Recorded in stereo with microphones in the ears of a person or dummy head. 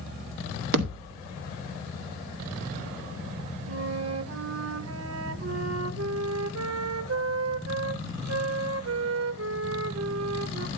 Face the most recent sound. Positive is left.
turn(degrees=-65)  # may be behind; listen again after turning